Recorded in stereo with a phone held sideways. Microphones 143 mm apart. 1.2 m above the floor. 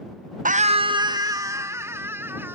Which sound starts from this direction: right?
A scream, at 0.5 s.